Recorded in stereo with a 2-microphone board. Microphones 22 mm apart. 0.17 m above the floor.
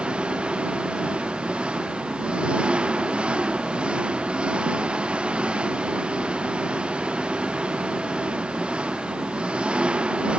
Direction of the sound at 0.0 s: 60° right (ahead or behind).